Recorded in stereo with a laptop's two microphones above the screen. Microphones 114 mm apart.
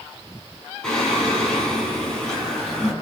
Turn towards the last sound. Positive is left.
turn(degrees=5)  # may be behind; listen again after turning